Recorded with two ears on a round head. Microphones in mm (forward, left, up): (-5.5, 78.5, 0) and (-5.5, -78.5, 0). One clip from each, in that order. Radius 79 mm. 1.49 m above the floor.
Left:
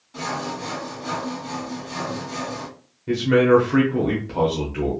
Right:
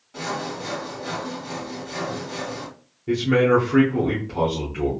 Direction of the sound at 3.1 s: 15° left (ahead or behind).